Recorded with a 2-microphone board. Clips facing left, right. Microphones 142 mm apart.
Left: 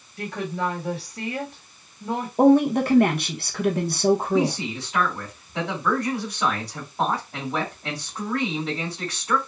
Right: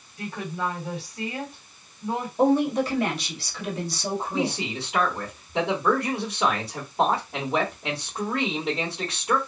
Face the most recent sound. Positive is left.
turn(degrees=-20)  # may be behind; listen again after turning